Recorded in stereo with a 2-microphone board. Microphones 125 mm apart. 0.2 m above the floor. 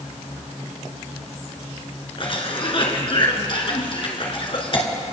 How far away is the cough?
About 2 m.